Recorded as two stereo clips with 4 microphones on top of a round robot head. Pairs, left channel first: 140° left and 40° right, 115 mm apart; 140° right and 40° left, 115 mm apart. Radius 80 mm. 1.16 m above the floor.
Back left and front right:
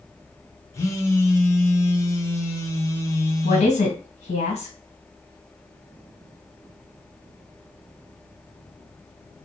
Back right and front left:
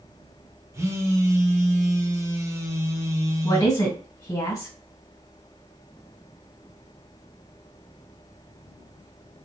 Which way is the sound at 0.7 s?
90° left.